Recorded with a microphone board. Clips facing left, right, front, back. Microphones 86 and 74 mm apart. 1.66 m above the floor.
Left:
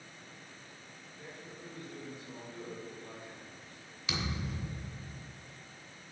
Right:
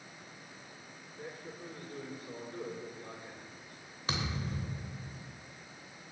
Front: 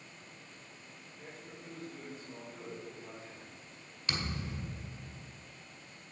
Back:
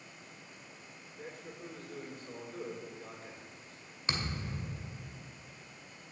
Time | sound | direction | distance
1.2 | a man speaking | 135° right | 5 m
4.1 | a thud | 125° right | 2 m